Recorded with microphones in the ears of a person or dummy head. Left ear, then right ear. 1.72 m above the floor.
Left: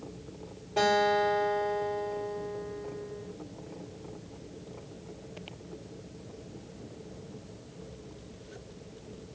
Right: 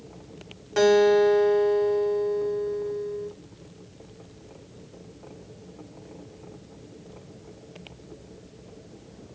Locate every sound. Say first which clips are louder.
0.8 s a guitar: right 7 dB; 60° right (ahead or behind), 1.2 m